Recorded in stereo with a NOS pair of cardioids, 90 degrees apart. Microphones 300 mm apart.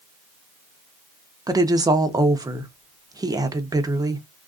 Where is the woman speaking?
10° right, 0.7 m.